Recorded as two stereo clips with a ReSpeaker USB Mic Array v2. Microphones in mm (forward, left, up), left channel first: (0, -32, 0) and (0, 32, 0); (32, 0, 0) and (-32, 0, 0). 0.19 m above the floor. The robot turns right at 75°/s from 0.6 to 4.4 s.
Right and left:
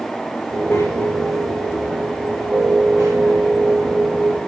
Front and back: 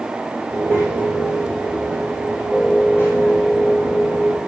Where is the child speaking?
140° right, 9.5 m; by 4.4 s 145° left, 9.5 m.